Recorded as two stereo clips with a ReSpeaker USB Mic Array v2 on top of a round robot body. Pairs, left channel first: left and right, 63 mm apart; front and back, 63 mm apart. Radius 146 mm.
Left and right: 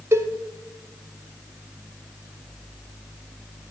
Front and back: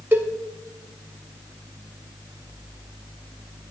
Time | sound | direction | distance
0.1 | a cowbell | 130° right | 1.5 m